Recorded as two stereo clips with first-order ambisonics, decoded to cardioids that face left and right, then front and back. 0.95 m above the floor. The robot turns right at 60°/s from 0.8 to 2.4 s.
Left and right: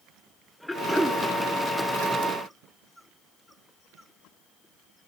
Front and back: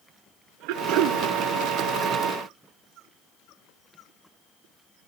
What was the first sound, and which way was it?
Throat clearing, 175° left.